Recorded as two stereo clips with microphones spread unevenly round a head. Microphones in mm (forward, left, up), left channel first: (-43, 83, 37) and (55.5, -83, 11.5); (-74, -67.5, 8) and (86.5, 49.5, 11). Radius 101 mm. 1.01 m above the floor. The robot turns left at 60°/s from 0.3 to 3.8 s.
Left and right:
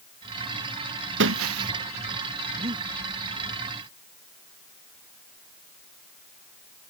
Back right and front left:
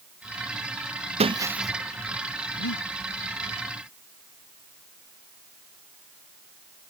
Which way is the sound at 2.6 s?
120° right.